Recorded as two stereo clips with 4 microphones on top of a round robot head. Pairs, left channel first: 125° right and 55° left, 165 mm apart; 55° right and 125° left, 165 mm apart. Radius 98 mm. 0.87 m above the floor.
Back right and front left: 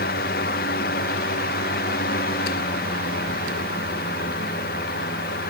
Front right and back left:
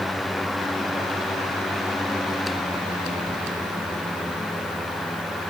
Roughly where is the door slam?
I don't hear a door slam.